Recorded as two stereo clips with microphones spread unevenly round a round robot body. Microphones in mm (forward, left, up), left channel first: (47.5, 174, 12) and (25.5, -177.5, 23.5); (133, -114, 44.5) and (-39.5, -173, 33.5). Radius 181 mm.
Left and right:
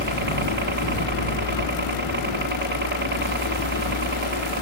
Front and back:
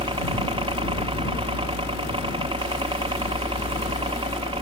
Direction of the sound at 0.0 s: 130° right.